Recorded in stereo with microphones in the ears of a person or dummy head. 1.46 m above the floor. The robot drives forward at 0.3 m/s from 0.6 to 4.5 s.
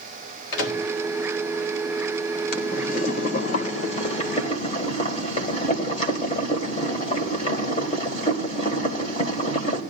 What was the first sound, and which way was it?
A microwave, 75° left (ahead or behind).